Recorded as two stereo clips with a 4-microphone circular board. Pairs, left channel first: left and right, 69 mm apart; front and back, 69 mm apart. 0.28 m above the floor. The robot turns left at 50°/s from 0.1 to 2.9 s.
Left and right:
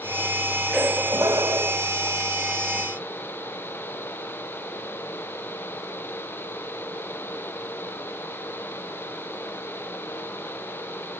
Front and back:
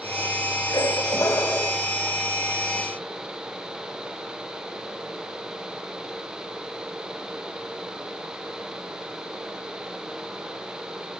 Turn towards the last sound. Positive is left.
turn(degrees=-130)